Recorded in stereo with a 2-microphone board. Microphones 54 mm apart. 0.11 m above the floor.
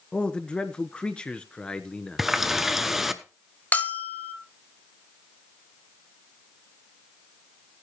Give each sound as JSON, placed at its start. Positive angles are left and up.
{"t": 0.1, "sound": "a man speaking", "side_deg": 20, "distance_m": 1.1}
{"t": 2.2, "sound": "a running tap", "side_deg": -5, "distance_m": 0.8}
{"t": 3.7, "sound": "a bell", "side_deg": 30, "distance_m": 0.7}